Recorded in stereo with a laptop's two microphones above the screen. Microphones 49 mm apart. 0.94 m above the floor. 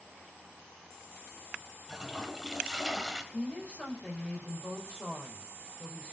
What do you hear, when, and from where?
1.9 s a toilet flushing: 10° right (ahead or behind), 2 m
3.3 s a woman speaking: 25° left (ahead or behind), 5 m